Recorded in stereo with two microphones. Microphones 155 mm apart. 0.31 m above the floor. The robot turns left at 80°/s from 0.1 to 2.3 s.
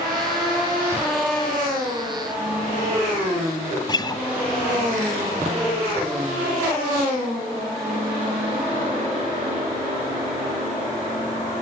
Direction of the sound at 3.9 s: 25° left (ahead or behind).